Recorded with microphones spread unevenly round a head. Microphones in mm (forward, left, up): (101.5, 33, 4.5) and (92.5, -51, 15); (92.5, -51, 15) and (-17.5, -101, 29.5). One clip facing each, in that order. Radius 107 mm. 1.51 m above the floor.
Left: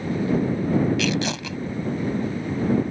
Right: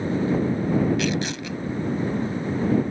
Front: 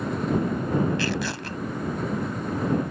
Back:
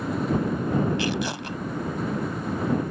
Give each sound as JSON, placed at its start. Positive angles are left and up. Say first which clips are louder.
{"t": 1.0, "sound": "tearing paper", "louder": "left 1 dB, back 1 dB", "azimuth_deg": 125}